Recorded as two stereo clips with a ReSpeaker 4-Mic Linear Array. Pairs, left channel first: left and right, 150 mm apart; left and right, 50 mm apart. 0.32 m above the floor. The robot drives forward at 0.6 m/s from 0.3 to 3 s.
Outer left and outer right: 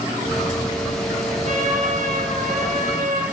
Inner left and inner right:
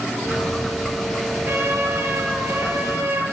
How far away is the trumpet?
About 6.5 m.